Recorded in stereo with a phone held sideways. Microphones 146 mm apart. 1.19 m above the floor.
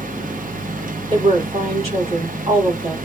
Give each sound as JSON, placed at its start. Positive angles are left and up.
{"t": 0.0, "sound": "a fan", "side_deg": -70, "distance_m": 0.8}
{"t": 1.1, "sound": "a woman speaking", "side_deg": -45, "distance_m": 3.0}